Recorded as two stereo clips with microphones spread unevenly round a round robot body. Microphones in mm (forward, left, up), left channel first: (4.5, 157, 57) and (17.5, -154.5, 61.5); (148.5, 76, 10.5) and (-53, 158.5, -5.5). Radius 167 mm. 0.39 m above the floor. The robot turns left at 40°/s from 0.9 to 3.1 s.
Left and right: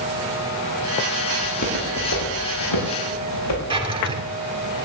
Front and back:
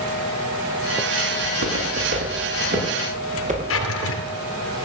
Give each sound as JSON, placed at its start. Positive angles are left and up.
{"t": 1.4, "sound": "footsteps", "azimuth_deg": 160, "distance_m": 6.5}
{"t": 3.7, "sound": "a drawer", "azimuth_deg": -15, "distance_m": 2.0}